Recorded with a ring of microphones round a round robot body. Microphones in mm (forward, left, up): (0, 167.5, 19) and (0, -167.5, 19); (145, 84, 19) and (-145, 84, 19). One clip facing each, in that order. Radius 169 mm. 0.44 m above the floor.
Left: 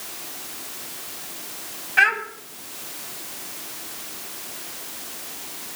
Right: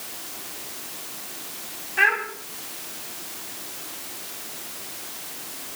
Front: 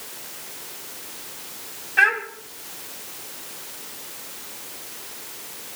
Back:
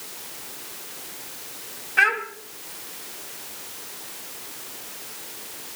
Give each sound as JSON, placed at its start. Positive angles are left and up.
{"t": 2.0, "sound": "a child speaking", "azimuth_deg": 105, "distance_m": 2.5}